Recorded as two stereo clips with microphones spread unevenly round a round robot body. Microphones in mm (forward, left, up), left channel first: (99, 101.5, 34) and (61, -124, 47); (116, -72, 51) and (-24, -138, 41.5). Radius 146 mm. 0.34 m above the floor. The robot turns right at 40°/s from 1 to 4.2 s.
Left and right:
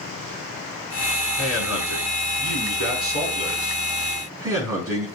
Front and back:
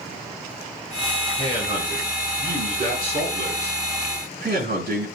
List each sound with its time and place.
1.4 s a man speaking: 70° left, 5.5 m; by 5.1 s straight behind, 5.5 m